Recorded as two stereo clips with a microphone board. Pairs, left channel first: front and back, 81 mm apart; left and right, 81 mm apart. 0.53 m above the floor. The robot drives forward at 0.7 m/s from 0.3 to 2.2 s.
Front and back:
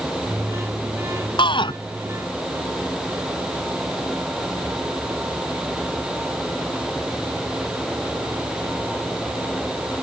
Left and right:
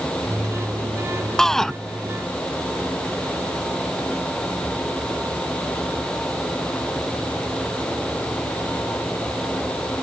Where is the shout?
5° left.